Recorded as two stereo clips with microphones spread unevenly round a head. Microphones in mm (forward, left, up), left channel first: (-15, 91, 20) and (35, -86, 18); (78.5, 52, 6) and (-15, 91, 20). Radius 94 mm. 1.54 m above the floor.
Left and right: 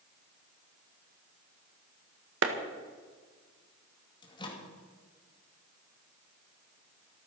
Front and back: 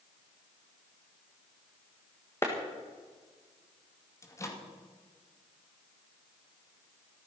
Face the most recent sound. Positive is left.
turn(degrees=40)